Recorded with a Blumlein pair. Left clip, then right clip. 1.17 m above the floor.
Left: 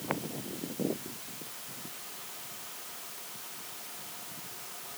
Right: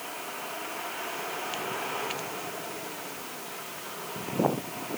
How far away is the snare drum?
I don't hear a snare drum.